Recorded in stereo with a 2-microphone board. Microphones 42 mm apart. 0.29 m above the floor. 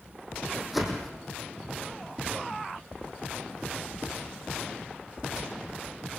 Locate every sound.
0.7 s a whoosh: 5° right (ahead or behind), 4 m